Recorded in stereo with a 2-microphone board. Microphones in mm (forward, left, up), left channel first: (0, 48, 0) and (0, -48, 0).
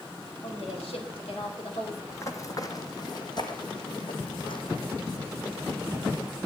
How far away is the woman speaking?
About 5.5 m.